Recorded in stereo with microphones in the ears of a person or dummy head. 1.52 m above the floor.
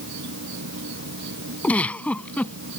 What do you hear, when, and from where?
0.0 s an insect: 65° right (ahead or behind)
1.6 s a giggle: 10° left (ahead or behind)